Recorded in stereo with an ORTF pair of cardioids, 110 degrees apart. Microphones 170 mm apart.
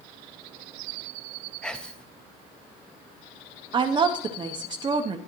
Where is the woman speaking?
30° right, 0.8 m.